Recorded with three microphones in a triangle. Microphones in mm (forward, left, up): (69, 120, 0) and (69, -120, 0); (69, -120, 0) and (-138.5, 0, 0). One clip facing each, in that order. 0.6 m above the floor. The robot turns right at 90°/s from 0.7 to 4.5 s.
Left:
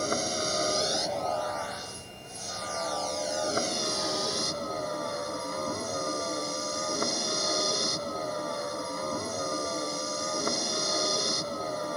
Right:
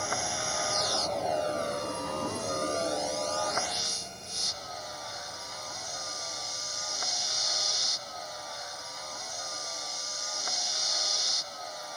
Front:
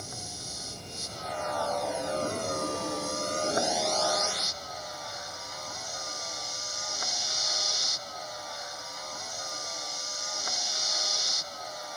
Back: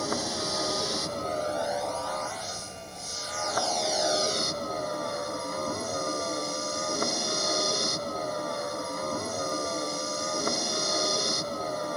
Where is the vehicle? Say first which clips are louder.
Left 6 dB, back 14 dB; 140° left; by 12.0 s 120° left.